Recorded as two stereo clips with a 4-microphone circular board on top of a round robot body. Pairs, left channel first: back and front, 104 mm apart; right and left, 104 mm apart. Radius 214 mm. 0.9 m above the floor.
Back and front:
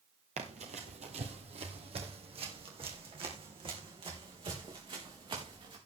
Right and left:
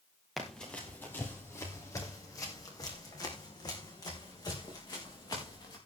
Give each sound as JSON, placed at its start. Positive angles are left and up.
{"t": 0.4, "sound": "running footsteps", "azimuth_deg": 0, "distance_m": 1.2}